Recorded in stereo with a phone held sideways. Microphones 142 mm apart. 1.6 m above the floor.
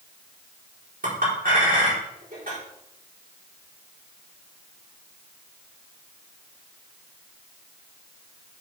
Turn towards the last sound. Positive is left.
turn(degrees=-80)